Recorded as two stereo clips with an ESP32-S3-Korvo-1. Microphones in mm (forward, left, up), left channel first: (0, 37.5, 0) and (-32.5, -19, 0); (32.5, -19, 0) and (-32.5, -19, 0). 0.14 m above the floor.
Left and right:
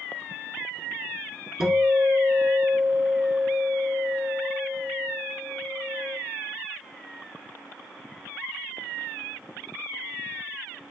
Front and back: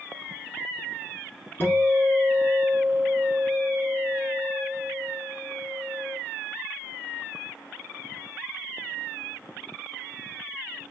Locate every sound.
1.6 s a guitar: 40° right, 1.0 m